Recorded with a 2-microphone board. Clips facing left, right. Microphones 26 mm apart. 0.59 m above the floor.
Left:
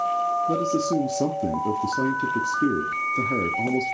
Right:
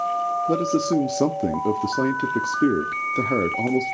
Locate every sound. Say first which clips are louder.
0.5 s a man speaking: right 2 dB; 40° right (ahead or behind), 0.8 m